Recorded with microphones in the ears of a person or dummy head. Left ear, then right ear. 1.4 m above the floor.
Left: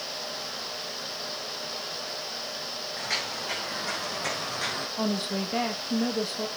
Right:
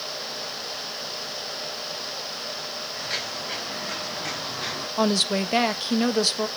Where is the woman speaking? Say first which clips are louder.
Right 12 dB; 75° right (ahead or behind), 1.2 m.